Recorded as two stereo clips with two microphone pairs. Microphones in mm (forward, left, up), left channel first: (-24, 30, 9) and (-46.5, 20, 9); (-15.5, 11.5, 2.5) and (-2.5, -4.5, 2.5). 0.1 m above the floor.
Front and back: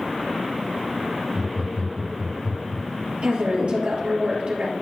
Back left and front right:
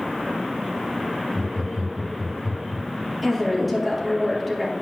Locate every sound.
1.3 s laughter: 100° right, 3.5 m
3.2 s a woman speaking: 135° right, 3 m